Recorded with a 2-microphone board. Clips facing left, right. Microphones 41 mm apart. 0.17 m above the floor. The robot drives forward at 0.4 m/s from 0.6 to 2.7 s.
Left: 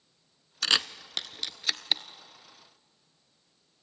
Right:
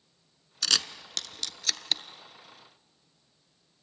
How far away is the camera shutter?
About 0.6 m.